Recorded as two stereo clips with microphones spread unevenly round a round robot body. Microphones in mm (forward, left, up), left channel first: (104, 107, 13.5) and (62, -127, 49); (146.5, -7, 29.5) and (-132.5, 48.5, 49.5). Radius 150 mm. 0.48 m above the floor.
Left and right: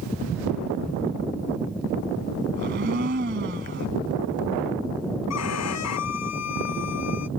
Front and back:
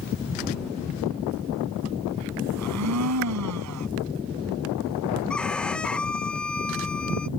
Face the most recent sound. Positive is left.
turn(degrees=75)